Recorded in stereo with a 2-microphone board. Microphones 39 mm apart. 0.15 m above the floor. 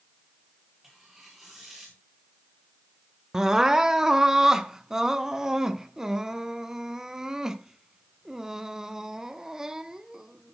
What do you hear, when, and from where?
0.8 s tearing paper: 10° right (ahead or behind), 9.5 m
3.3 s crying: 15° right (ahead or behind), 0.8 m